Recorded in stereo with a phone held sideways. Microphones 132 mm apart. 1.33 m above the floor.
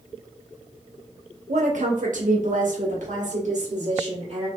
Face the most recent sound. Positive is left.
turn(degrees=-60)  # may be behind; listen again after turning